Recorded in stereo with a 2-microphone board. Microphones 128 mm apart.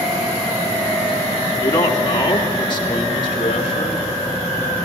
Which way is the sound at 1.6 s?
30° left (ahead or behind).